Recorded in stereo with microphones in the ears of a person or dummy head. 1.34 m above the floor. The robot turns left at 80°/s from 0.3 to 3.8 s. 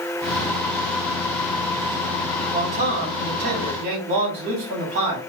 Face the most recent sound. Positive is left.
turn(degrees=-140)